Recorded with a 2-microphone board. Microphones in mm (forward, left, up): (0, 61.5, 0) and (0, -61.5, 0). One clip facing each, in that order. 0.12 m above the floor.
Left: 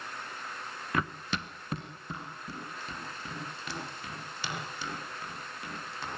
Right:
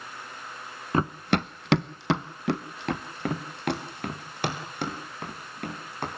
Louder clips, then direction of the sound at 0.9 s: Right 8 dB; 30° right (ahead or behind).